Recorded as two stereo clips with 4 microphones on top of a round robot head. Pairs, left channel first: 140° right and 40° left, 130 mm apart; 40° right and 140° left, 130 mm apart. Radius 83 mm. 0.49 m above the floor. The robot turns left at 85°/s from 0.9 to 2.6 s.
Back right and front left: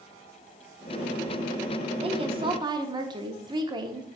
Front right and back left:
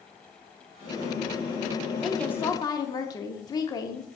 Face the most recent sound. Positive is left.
turn(degrees=5)